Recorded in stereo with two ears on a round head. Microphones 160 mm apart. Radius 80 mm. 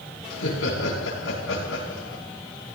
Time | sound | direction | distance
0.3 | laughter | 80° left | 8 m